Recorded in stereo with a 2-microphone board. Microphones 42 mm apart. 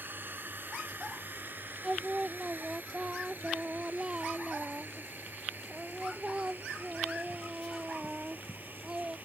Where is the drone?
55° right (ahead or behind); by 9.3 s 50° right (ahead or behind).